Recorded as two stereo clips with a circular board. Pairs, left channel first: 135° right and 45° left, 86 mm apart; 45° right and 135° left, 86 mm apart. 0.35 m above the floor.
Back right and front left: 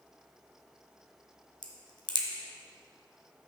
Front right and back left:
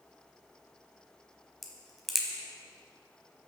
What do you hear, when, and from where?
1.6 s a crack: 135° right, 1.3 m